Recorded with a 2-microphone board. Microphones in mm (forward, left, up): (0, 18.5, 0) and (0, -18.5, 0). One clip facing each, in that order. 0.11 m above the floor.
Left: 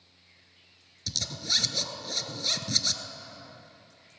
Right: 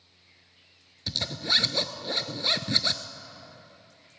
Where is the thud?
I don't hear a thud.